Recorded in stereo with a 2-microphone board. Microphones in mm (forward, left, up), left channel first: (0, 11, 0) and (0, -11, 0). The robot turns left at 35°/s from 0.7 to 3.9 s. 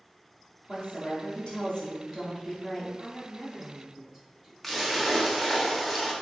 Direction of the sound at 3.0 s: 10° left.